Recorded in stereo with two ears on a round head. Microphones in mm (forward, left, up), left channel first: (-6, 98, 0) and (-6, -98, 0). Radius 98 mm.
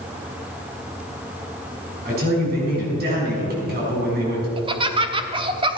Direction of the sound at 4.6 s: 20° right (ahead or behind).